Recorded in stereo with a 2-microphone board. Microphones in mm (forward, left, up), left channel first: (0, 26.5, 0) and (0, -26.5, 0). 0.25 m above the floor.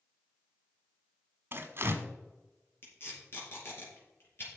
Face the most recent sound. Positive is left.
turn(degrees=50)  # may be behind; listen again after turning